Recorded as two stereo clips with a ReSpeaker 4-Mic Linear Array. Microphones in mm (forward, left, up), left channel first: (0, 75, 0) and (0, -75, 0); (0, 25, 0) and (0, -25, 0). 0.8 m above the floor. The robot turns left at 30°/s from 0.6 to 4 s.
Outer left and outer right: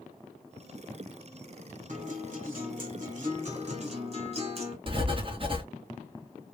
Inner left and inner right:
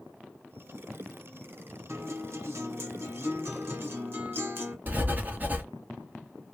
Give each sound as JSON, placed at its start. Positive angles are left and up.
{"t": 1.9, "sound": "a guitar", "azimuth_deg": -70, "distance_m": 1.2}
{"t": 4.9, "sound": "writing", "side_deg": -35, "distance_m": 1.1}